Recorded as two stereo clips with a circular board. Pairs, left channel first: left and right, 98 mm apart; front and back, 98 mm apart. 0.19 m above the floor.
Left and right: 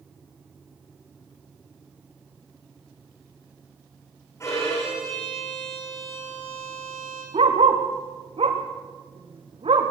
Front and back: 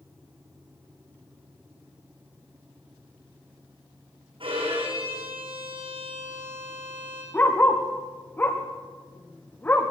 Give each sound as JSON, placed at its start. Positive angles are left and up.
{"t": 4.4, "sound": "a violin", "azimuth_deg": 150, "distance_m": 9.5}
{"t": 7.3, "sound": "a dog barking", "azimuth_deg": -70, "distance_m": 4.5}